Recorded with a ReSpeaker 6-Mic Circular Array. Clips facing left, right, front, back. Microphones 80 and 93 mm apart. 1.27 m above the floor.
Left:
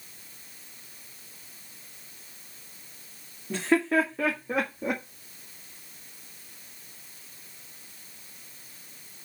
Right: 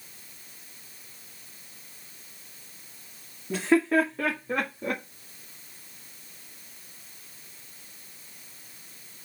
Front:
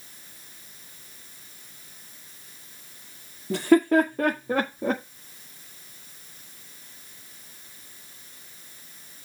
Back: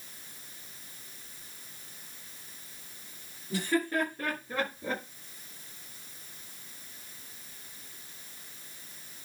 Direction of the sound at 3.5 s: 5° right.